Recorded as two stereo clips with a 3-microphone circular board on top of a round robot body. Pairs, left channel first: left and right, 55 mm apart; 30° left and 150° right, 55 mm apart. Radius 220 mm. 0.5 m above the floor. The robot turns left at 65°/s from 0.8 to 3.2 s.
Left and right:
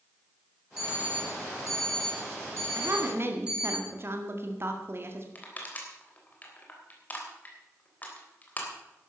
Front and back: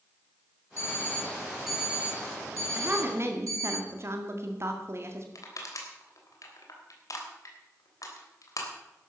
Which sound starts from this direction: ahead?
An alarm clock, at 0.8 s.